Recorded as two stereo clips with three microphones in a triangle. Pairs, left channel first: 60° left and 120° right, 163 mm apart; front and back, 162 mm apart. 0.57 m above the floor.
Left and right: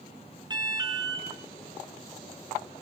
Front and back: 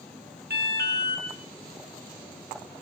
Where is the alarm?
175° left, 7.5 m.